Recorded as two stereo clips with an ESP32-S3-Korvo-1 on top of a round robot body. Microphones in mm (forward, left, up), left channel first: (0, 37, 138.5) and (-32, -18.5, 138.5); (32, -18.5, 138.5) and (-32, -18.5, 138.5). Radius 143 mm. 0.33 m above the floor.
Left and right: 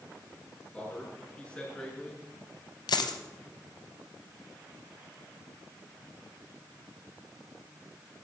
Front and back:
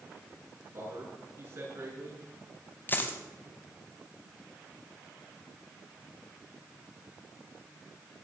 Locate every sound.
0.7 s a man speaking: 135° left, 6.5 m
2.9 s a dropped coin: 60° left, 0.9 m